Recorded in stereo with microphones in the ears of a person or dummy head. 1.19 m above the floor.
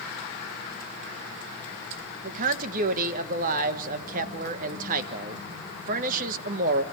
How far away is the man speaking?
About 1.4 m.